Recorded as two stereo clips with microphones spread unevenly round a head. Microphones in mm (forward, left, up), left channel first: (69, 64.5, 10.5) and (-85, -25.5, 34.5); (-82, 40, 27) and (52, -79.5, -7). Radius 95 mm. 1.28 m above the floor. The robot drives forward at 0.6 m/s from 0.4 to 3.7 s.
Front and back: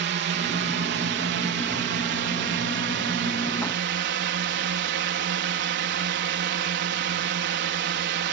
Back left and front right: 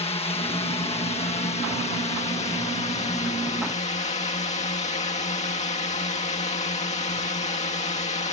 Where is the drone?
165° right.